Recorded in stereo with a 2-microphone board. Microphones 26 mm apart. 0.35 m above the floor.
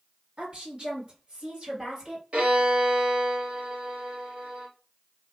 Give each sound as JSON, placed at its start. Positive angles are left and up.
{"t": 0.4, "sound": "a woman speaking", "side_deg": -35, "distance_m": 1.8}
{"t": 2.3, "sound": "a violin", "side_deg": -45, "distance_m": 1.5}